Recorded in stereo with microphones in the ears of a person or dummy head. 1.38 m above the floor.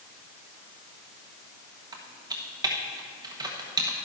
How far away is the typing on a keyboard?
About 1.2 m.